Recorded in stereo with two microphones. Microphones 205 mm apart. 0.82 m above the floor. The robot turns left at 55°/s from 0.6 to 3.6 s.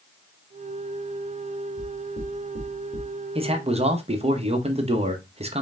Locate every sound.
1.8 s knocking: 30° left (ahead or behind), 1.8 m; by 3.1 s 75° left (ahead or behind), 1.8 m
3.4 s a man speaking: 25° right (ahead or behind), 0.8 m; by 5.6 s 30° right (ahead or behind), 0.8 m